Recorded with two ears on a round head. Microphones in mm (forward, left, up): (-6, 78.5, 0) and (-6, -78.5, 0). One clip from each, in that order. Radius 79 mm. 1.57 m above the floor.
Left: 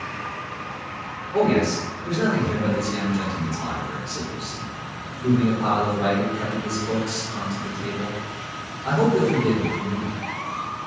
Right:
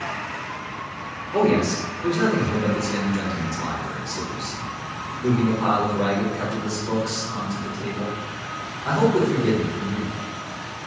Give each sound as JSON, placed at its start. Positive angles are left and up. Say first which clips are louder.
{"t": 1.3, "sound": "a man speaking", "louder": "even", "side_deg": -30, "distance_m": 1.2}